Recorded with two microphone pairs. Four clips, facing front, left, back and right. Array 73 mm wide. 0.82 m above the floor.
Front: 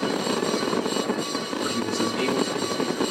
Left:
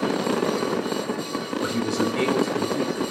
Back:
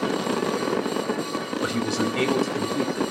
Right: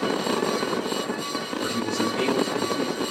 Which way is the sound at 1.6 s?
165° left.